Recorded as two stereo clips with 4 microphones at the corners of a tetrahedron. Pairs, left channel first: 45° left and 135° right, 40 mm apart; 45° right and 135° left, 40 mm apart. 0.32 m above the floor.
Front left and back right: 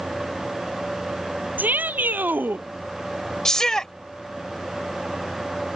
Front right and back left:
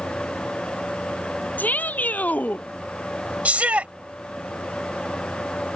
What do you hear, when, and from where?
1.6 s a shout: 90° right; by 2.6 s 95° right
3.5 s a shout: 115° left